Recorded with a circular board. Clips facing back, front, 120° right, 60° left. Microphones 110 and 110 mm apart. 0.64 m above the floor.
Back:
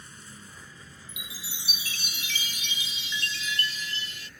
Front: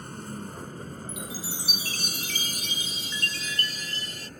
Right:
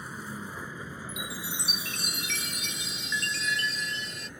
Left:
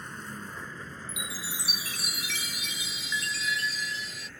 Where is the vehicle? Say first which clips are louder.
Front 12 dB, right 2 dB; 35° right; by 4.4 s 45° right.